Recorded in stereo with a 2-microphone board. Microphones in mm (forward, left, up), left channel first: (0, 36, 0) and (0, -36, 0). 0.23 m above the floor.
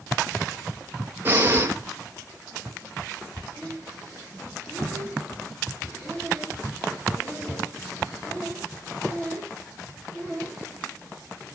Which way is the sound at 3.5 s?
20° left (ahead or behind).